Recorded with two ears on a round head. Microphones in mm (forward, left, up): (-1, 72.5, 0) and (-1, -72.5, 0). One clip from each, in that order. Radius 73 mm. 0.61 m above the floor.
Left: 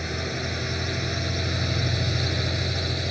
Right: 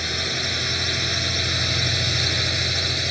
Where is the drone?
65° right (ahead or behind); by 3.1 s 55° right (ahead or behind).